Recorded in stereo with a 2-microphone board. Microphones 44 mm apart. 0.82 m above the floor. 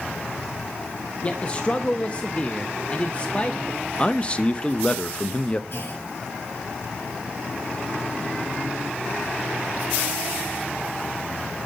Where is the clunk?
55° left (ahead or behind), 4.5 m.